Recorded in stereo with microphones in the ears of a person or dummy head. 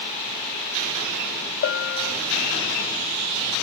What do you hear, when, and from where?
1.6 s a bell: 60° left (ahead or behind), 2 m